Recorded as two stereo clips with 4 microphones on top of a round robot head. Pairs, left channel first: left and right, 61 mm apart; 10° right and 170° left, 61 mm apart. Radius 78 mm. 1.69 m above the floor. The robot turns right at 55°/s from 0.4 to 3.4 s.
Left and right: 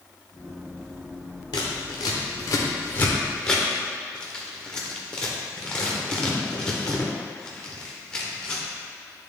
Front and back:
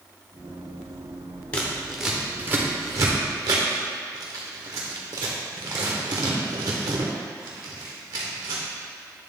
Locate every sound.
1.5 s scissors: 60° left, 0.7 m; by 8.6 s 165° left, 0.7 m